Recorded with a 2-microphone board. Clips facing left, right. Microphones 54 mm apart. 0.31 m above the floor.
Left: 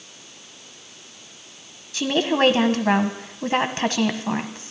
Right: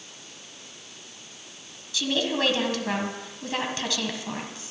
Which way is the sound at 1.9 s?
45° left (ahead or behind).